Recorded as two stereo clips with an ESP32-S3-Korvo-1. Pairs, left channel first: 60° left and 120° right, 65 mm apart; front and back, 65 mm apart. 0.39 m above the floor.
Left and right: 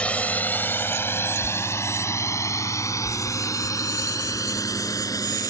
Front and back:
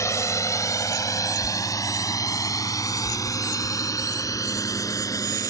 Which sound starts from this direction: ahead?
A drone, at 0.0 s.